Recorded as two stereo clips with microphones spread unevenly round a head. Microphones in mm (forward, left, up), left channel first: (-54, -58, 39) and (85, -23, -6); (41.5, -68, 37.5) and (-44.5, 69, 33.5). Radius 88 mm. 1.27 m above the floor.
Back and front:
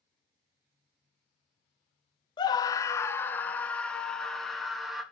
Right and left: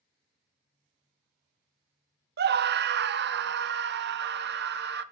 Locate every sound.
2.4 s a scream: 120° left, 1.0 m; by 5.0 s 100° left, 2.5 m